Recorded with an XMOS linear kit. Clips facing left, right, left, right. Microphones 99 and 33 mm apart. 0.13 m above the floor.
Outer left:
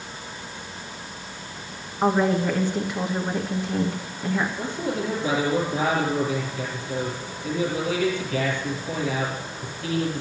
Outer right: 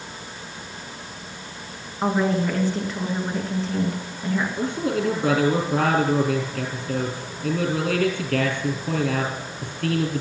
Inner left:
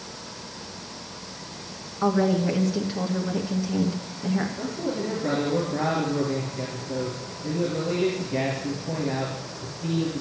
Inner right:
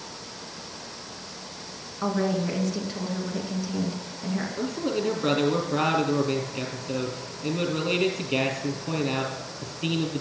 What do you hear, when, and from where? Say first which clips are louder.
2.0 s a woman speaking: outer left 1 dB, inner left 4 dB; 10° left (ahead or behind), 1.6 m
4.6 s a man speaking: outer right 4 dB, inner right 1 dB; 65° right (ahead or behind), 4.5 m